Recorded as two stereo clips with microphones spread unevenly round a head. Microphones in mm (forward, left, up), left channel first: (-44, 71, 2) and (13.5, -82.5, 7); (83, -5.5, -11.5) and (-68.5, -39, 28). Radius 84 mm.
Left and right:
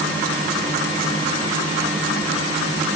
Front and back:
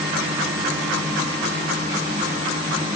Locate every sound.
Only background noise.